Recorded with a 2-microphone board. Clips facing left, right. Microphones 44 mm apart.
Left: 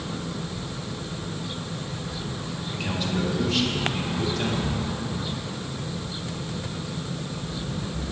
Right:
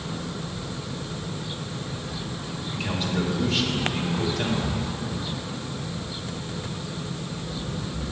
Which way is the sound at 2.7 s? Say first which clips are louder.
Right 1 dB; 5° right (ahead or behind).